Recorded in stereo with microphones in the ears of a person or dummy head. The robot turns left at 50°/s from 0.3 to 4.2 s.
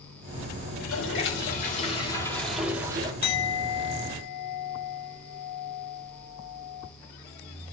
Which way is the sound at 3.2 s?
125° left.